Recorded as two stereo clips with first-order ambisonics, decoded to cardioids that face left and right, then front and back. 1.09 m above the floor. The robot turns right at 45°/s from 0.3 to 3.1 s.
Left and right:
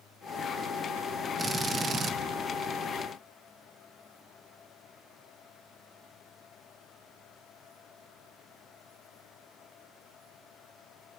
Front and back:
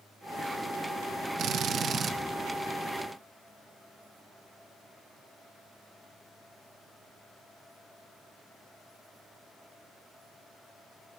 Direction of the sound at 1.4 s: 160° right.